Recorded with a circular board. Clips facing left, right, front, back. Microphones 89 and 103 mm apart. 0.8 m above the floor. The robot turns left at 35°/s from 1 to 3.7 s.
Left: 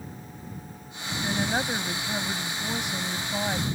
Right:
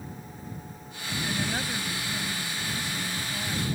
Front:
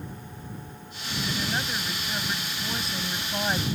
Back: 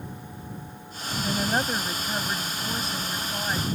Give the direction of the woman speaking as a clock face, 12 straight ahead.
7 o'clock.